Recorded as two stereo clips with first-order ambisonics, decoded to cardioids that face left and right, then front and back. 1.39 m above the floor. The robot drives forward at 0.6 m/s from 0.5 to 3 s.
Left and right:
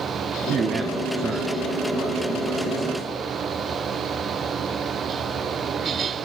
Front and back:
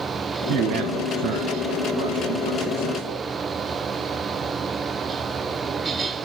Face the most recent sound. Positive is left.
turn(degrees=-170)